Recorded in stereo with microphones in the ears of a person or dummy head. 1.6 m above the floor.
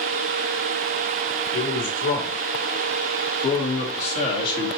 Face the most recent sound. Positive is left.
turn(degrees=30)  # may be behind; listen again after turning